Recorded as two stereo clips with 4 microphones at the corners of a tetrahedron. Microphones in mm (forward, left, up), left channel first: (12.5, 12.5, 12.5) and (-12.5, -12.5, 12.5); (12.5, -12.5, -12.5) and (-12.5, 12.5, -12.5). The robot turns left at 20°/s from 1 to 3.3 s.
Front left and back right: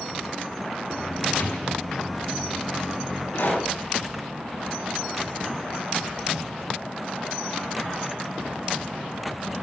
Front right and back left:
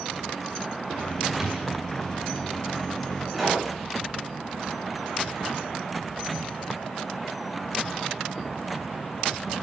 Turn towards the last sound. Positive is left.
turn(degrees=45)